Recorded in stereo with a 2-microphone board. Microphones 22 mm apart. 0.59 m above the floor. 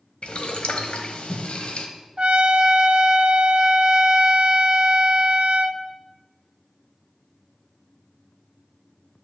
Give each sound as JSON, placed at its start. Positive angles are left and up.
{"t": 0.2, "sound": "boiling", "side_deg": 65, "distance_m": 1.4}
{"t": 2.2, "sound": "a trumpet", "side_deg": -55, "distance_m": 0.7}